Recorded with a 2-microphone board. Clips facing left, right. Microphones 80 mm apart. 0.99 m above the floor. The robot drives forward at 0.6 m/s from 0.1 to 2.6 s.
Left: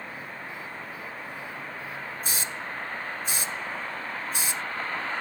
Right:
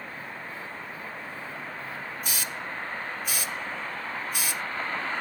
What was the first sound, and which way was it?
A hiss, 35° left (ahead or behind).